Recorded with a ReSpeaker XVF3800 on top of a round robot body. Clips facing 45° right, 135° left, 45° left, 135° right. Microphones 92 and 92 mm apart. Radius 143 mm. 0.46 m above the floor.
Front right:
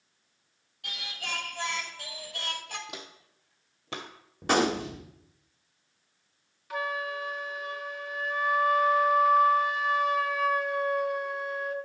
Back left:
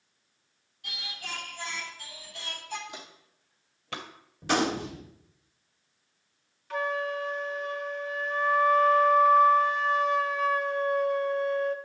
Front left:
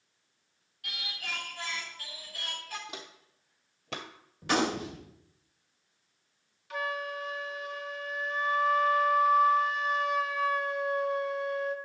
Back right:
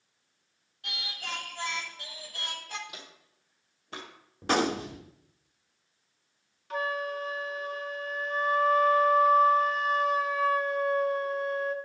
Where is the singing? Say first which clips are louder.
Front right 2 dB, back right 2 dB; 75° right, 1.3 m.